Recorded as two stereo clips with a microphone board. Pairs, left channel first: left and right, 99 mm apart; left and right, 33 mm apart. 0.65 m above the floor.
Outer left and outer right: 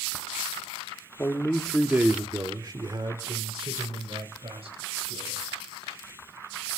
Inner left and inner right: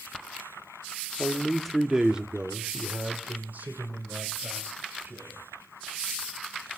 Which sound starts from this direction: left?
A man speaking, at 1.2 s.